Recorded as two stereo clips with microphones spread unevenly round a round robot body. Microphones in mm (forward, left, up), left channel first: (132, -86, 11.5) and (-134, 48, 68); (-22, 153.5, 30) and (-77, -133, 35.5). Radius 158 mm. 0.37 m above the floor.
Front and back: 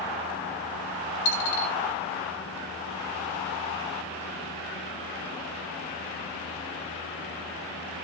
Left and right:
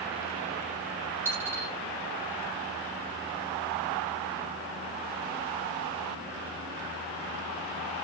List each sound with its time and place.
1.2 s a dropped coin: 15° right, 1.4 m